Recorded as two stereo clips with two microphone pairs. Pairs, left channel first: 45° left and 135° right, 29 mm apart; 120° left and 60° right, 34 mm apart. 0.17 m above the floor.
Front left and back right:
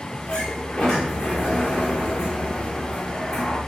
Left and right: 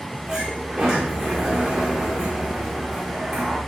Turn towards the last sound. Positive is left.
turn(degrees=10)